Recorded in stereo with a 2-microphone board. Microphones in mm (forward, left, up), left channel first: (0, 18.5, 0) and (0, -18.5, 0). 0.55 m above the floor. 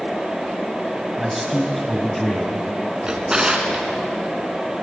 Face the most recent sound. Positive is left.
turn(degrees=-20)  # may be behind; listen again after turning